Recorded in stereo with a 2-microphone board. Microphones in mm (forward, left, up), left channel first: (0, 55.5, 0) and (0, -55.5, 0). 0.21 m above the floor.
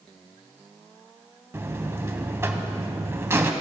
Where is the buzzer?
25° right (ahead or behind), 0.6 m.